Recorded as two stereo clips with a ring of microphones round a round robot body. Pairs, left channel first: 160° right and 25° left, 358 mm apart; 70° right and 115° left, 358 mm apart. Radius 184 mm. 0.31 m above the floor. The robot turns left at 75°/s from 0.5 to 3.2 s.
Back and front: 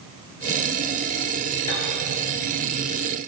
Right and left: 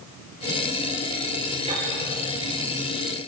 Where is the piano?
170° right, 7 m; by 1.9 s 175° left, 7 m.